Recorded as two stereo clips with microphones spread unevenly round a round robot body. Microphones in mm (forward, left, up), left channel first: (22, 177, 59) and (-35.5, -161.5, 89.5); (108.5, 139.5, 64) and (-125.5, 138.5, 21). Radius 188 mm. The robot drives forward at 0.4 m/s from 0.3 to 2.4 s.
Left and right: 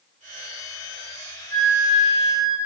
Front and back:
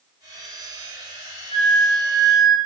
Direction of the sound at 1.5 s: 155° left.